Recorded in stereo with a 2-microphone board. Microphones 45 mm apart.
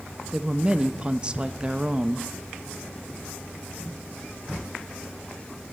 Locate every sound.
0.3 s a woman speaking: 25° right (ahead or behind), 0.6 m